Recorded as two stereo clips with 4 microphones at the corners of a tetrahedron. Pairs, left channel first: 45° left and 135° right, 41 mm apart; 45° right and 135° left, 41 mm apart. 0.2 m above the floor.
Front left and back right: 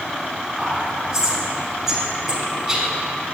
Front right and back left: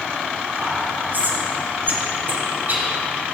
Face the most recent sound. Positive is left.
turn(degrees=145)